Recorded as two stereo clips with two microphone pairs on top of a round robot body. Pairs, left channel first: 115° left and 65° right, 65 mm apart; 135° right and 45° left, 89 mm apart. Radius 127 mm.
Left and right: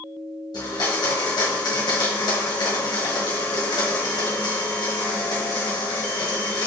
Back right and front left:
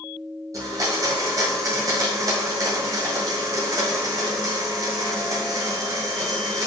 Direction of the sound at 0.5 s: 100° left.